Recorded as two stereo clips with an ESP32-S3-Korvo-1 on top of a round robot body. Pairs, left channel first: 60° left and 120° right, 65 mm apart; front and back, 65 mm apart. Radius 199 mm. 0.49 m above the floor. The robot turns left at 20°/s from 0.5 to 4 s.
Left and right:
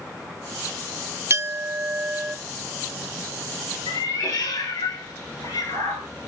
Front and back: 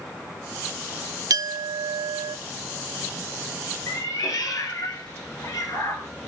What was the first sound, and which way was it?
A clink, 165° right.